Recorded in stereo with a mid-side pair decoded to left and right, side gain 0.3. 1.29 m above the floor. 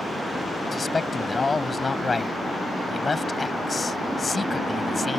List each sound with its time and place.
0.7 s a man speaking: 35° left